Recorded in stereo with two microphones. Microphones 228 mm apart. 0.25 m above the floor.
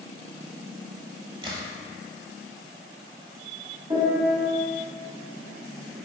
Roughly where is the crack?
Right.